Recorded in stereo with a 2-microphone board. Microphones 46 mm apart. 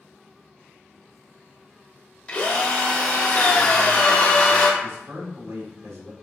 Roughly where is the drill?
Left.